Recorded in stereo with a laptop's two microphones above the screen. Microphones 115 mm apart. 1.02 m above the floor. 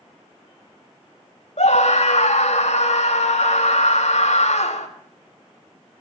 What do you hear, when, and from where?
1.6 s a scream: 75° left (ahead or behind), 2.5 m